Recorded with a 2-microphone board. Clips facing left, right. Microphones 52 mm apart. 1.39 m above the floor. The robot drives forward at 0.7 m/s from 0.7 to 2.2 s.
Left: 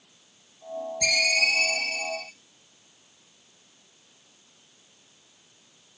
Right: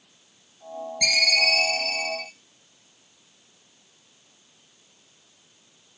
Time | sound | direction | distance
1.0 | a ringtone | 60° right (ahead or behind) | 3 m